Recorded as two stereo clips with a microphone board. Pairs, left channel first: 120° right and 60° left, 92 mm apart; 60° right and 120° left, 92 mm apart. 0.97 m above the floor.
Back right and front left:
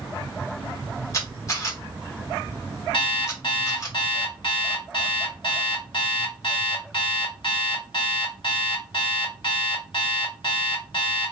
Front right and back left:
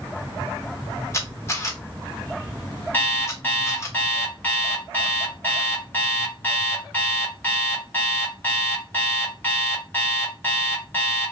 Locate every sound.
1.1 s a camera shutter: 95° right, 1.0 m
2.9 s an alarm clock: 130° right, 1.1 m